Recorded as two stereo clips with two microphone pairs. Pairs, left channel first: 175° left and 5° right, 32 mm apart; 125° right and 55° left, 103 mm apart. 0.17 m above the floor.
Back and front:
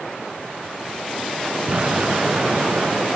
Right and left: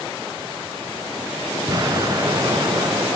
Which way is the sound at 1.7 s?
25° left.